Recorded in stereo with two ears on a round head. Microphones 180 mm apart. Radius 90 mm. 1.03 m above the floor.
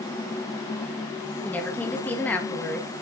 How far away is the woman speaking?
About 1.6 m.